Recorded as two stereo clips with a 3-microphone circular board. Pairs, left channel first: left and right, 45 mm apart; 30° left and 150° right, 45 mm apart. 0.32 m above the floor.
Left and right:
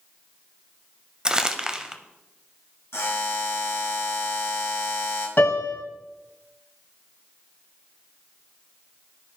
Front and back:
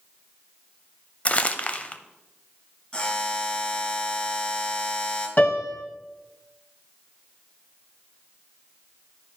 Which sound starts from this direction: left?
A buzzer, at 2.9 s.